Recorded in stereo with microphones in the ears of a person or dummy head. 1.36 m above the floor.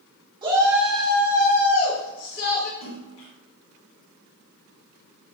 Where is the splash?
45° left (ahead or behind), 1.2 m.